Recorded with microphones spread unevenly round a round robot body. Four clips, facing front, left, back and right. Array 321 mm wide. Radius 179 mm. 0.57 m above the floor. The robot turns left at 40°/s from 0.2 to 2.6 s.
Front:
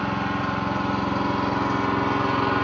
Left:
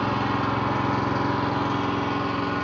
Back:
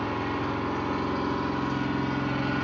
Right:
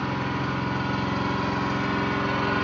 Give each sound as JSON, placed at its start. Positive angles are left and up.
{"t": 0.0, "sound": "an engine running", "azimuth_deg": 90, "distance_m": 1.4}